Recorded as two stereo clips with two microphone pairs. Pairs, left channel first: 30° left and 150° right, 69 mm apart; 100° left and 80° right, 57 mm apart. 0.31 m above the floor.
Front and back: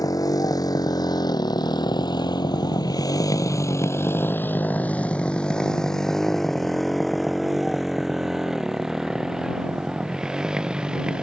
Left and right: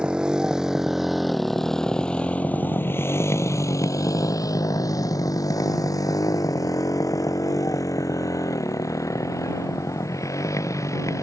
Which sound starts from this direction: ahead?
A motorcycle, at 0.0 s.